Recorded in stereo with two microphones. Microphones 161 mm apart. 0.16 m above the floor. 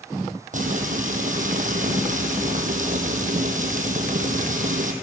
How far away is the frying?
About 1.8 m.